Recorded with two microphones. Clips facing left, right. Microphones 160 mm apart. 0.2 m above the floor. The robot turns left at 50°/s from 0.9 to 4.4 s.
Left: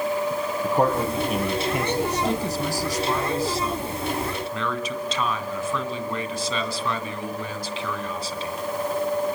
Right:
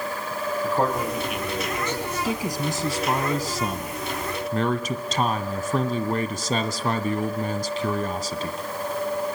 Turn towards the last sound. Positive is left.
turn(degrees=-115)